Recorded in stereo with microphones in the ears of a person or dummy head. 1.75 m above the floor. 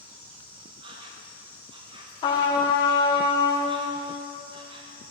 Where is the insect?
30° right (ahead or behind), 0.8 m.